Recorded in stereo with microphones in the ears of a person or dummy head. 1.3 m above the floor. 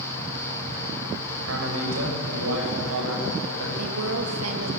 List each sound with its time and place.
1.4 s a man speaking: 90° right, 6 m; by 3.7 s 85° right, 7.5 m
3.8 s a woman speaking: 75° right (ahead or behind), 2.5 m